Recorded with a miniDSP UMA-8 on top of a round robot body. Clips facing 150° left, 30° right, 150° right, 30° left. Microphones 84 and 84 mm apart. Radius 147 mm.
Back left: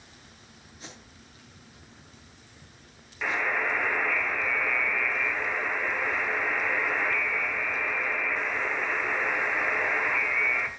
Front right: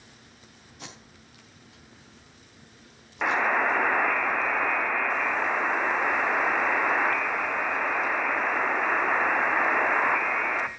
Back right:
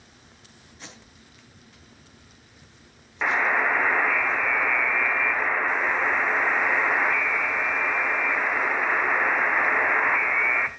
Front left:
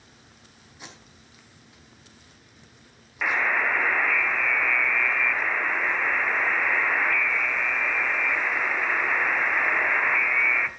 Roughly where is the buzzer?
Right.